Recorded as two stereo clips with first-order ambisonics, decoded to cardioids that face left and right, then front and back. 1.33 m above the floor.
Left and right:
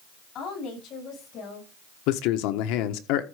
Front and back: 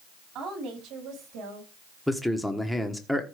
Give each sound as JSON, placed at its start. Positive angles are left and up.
{"t": 0.3, "sound": "a woman speaking", "azimuth_deg": 145, "distance_m": 8.0}
{"t": 2.1, "sound": "a man speaking", "azimuth_deg": 90, "distance_m": 1.2}